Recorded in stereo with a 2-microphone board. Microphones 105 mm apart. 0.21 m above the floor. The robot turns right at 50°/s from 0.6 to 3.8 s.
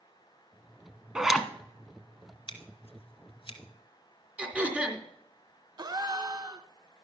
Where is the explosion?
No explosion in this recording.